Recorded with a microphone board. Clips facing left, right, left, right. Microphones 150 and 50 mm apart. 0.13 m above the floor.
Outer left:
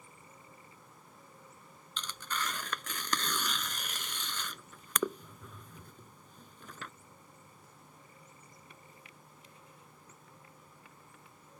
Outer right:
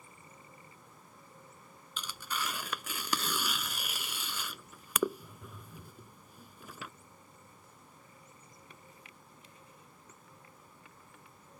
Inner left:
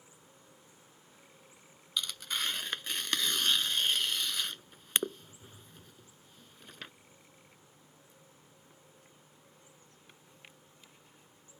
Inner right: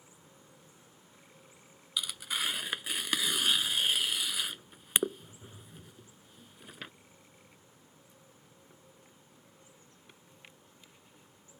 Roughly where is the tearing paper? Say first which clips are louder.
Even, inner right 1 dB; centre.